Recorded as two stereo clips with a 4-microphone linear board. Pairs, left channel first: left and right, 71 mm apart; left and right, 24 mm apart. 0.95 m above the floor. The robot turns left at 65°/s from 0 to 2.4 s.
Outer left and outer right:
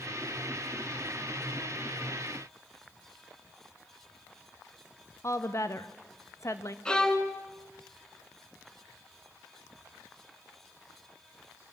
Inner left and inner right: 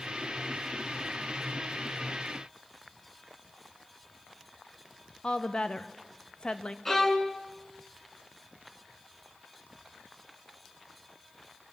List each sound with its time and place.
5.2 s a woman speaking: 45° left (ahead or behind), 1.3 m
6.8 s a violin: 10° left (ahead or behind), 2.0 m